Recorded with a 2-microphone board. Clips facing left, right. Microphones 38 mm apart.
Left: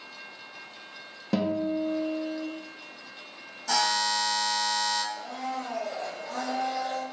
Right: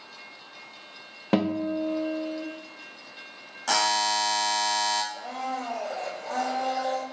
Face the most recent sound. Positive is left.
turn(degrees=-75)  # may be behind; listen again after turning